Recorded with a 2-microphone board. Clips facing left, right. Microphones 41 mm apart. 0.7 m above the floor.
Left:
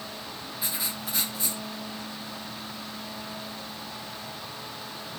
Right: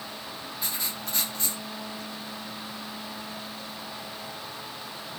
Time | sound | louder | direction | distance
0.6 | writing | left 1 dB | 5° left (ahead or behind) | 1.0 m